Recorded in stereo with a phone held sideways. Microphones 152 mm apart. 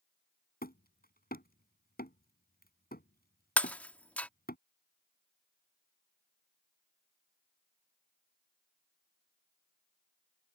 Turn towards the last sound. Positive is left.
turn(degrees=10)  # may be behind; listen again after turning